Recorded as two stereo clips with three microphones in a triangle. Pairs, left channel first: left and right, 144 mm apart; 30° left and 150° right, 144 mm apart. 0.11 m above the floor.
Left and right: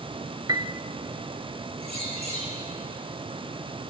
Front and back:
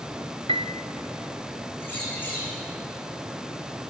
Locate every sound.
0.5 s a piano: 140° right, 0.7 m
1.8 s a bird: 45° right, 5.5 m